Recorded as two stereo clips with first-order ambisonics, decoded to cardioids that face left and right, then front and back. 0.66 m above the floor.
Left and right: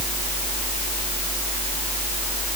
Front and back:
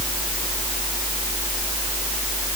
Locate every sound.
Only background noise.